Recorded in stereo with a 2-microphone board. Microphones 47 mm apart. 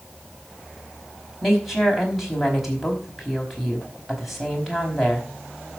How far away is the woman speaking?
About 4.5 m.